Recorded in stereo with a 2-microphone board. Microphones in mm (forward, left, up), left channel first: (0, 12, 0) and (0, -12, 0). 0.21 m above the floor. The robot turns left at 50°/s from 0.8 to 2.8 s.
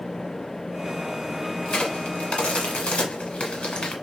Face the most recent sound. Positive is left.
turn(degrees=55)  # may be behind; listen again after turning